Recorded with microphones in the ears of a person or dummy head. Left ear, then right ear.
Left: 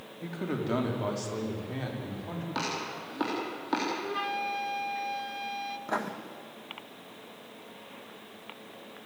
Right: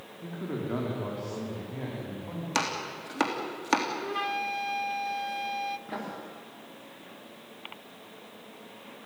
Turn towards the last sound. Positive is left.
turn(degrees=40)  # may be behind; listen again after turning